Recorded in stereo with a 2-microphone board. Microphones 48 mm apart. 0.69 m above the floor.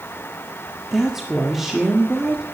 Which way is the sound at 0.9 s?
5° right (ahead or behind).